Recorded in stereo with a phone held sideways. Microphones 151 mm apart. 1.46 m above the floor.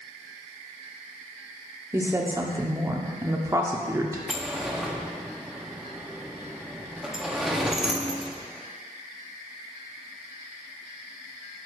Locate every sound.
1.9 s a woman speaking: 20° right (ahead or behind), 0.7 m
4.3 s a sliding door: centre (ahead or behind), 0.6 m